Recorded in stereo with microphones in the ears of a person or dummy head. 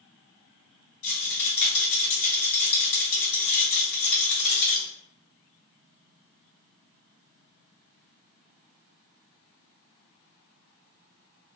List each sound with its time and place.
1.0 s a rattle: 70° left (ahead or behind), 1.6 m